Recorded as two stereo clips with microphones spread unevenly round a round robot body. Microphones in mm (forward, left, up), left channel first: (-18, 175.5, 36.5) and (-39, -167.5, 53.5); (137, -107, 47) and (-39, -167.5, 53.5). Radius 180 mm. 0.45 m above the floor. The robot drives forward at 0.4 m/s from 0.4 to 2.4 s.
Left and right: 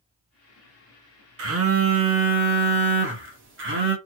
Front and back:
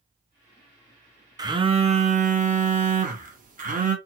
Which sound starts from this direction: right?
A phone buzzing, at 1.4 s.